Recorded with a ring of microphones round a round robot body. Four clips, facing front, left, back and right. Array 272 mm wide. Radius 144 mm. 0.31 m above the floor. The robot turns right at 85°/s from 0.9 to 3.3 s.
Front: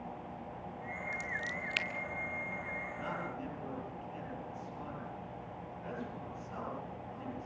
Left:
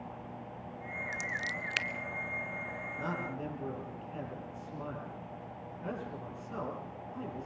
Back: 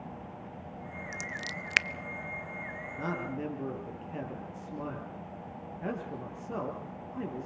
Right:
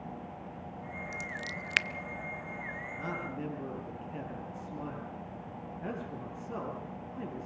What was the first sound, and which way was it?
Scissors, 150° left.